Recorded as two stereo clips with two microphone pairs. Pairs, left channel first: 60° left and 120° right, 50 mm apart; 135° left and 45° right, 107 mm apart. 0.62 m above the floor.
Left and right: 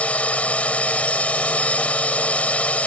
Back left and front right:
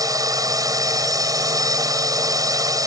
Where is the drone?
5° left.